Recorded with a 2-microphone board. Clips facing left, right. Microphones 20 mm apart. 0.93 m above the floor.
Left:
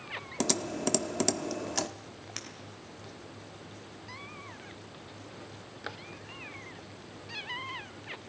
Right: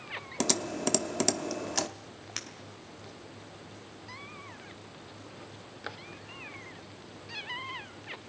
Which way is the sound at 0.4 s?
10° right (ahead or behind).